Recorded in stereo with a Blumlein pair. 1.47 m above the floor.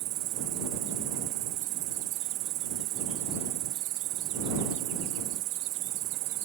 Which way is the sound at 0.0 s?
40° right.